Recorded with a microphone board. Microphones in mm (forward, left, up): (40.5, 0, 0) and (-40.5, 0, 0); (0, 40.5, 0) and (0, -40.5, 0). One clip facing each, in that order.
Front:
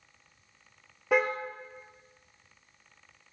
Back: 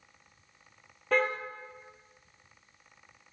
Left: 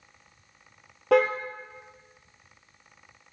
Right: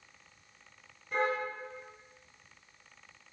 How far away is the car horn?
About 3.5 m.